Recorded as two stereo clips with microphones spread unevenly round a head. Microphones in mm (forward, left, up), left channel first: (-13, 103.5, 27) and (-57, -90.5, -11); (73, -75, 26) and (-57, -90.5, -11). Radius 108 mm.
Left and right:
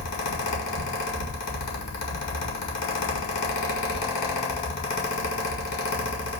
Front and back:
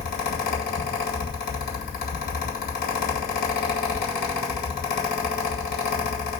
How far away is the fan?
About 1.8 m.